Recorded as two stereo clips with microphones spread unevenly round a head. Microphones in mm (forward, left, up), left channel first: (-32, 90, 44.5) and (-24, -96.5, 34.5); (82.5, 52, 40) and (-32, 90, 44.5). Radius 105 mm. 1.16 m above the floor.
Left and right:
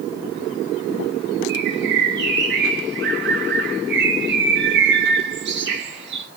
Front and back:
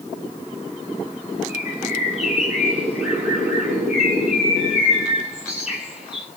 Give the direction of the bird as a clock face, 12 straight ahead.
4 o'clock.